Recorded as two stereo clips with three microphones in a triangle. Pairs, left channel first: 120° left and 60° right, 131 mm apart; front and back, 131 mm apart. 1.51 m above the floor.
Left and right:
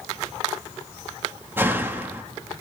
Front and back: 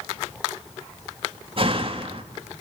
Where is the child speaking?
No child speaking in this recording.